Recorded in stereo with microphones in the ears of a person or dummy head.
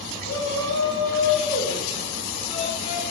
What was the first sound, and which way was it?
A shout, 70° left (ahead or behind).